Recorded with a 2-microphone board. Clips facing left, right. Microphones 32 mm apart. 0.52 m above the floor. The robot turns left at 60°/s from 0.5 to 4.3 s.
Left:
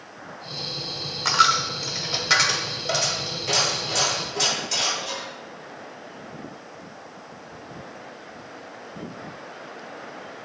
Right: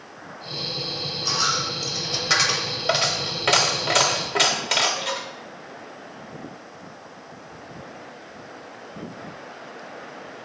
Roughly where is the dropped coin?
Left.